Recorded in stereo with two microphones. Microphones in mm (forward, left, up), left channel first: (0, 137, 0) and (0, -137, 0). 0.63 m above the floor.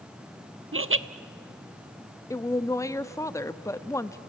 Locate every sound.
0.7 s laughter: 50° right (ahead or behind), 0.7 m
2.3 s a woman speaking: 10° left (ahead or behind), 0.6 m